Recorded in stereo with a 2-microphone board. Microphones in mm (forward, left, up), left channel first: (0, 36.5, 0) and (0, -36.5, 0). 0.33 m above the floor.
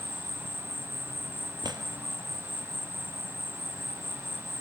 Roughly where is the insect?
Right.